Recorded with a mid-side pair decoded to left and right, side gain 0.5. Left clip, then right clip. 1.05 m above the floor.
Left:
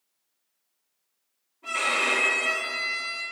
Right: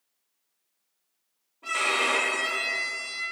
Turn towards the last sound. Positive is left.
turn(degrees=-45)